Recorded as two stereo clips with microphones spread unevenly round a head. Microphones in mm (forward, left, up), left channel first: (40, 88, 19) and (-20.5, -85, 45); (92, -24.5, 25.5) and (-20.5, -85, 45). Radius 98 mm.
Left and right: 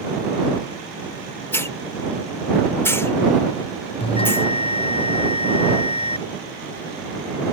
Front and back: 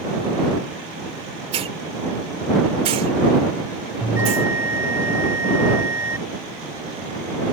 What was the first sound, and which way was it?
A hiss, 150° left.